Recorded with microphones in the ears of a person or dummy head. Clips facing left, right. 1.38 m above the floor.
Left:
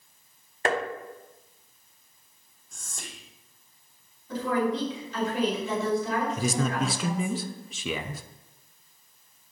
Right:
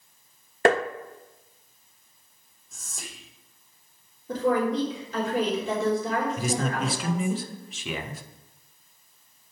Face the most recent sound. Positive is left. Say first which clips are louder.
# even
turn(degrees=80)